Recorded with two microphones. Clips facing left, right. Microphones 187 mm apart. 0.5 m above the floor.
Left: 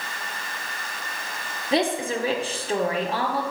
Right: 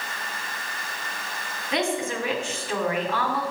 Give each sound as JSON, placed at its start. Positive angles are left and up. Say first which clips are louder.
{"t": 1.7, "sound": "a woman speaking", "louder": "left 3 dB", "side_deg": 35, "distance_m": 1.1}